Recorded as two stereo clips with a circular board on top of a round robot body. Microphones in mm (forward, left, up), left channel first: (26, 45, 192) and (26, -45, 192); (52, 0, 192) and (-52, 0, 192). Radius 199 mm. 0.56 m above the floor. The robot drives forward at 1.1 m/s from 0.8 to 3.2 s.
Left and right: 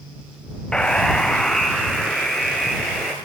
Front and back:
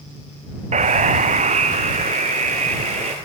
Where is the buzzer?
170° left, 0.6 m; by 3.1 s straight behind, 3 m.